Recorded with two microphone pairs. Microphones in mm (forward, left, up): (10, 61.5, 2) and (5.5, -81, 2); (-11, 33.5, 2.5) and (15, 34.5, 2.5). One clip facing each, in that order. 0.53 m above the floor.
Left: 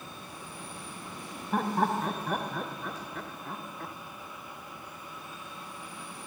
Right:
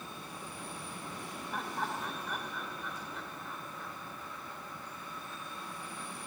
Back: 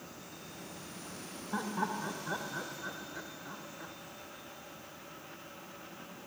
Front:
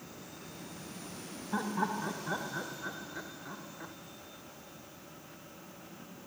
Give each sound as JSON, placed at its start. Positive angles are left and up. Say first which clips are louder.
{"t": 1.5, "sound": "laughter", "louder": "left 11 dB, front 2 dB", "azimuth_deg": 90}